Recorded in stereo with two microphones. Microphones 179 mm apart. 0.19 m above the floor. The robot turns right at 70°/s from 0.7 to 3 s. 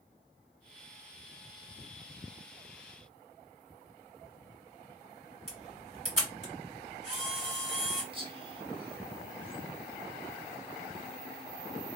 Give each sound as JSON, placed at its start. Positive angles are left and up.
{"t": 5.5, "sound": "a camera shutter", "side_deg": -40, "distance_m": 2.5}
{"t": 8.1, "sound": "whispering", "side_deg": -30, "distance_m": 1.3}